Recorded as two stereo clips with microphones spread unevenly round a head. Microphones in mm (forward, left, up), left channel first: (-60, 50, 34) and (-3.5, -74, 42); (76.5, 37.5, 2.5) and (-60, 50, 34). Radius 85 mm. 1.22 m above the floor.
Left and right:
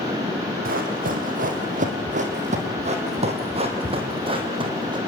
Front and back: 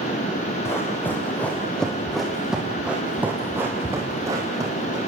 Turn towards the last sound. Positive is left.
turn(degrees=-120)